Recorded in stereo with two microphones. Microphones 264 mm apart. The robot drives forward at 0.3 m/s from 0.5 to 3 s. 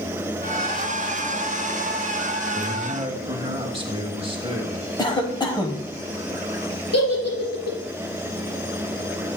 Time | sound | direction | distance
2.5 | a man speaking | 20° right (ahead or behind) | 1.4 m
5.0 | a cough | 15° left (ahead or behind) | 1.1 m
6.9 | a giggle | 70° left (ahead or behind) | 3 m